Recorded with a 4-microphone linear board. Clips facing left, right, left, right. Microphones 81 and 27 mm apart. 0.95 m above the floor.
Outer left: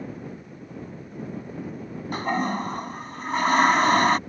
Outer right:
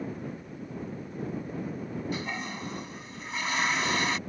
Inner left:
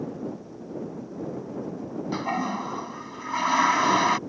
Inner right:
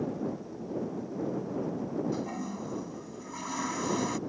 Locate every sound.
2.1 s a toilet flushing: 50° left (ahead or behind)